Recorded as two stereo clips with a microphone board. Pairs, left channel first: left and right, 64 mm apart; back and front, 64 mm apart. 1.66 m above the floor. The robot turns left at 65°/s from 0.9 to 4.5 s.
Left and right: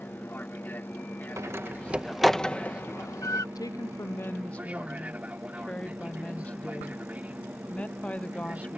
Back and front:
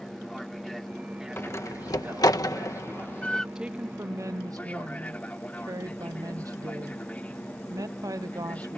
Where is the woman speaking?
80° left; by 8.8 s 20° left.